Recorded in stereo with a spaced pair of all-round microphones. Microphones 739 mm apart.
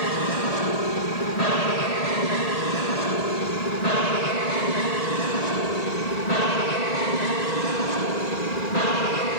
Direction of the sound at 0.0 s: 55° left (ahead or behind).